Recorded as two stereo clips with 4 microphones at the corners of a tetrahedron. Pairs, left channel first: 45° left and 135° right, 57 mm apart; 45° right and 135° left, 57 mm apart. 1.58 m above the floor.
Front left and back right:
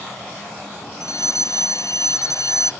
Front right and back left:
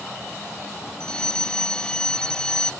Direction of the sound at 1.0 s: 30° left.